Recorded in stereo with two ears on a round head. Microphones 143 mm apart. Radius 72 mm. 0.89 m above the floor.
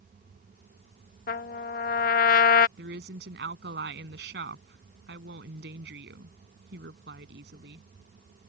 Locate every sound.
1.3 s a trumpet: 55° left (ahead or behind)
2.8 s a woman speaking: 70° right (ahead or behind)